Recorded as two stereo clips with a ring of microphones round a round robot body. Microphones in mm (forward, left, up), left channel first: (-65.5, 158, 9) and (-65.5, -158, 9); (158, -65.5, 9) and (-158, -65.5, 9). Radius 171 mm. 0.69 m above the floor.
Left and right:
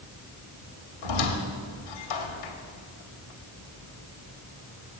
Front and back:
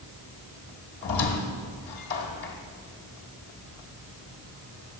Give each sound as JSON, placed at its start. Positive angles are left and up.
{"t": 1.0, "sound": "a squeak", "azimuth_deg": 60, "distance_m": 1.1}